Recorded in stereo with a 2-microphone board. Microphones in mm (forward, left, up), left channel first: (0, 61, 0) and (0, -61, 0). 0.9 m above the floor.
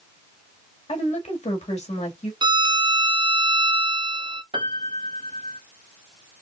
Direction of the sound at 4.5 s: 45° right (ahead or behind).